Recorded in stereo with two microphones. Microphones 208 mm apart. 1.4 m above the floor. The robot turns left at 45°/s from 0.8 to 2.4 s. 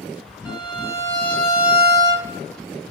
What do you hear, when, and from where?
0.5 s a violin: 30° left, 0.7 m; by 2.3 s 35° right, 0.7 m